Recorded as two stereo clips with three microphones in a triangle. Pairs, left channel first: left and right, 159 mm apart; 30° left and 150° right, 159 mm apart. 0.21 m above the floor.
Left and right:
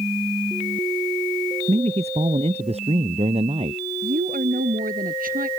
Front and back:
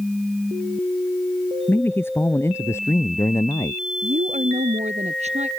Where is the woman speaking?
110° right.